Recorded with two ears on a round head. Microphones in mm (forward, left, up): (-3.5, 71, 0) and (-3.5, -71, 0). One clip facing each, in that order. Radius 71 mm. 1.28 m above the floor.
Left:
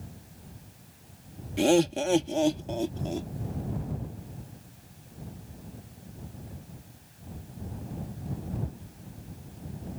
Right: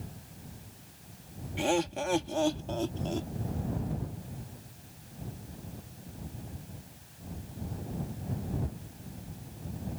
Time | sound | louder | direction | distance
1.6 | laughter | left 7 dB | 50° left (ahead or behind) | ?